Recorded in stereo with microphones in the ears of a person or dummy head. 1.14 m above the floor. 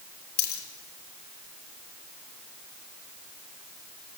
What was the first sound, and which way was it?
A dropped coin, 55° left (ahead or behind).